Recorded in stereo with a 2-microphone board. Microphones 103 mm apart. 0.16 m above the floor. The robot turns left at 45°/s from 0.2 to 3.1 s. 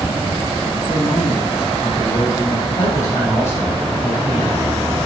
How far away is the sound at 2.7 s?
About 6.5 m.